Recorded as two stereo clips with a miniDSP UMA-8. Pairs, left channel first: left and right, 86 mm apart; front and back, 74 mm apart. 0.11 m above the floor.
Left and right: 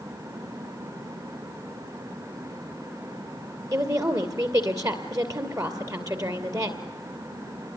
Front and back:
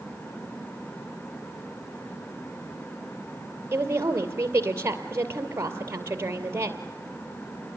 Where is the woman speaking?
130° right, 2.5 m.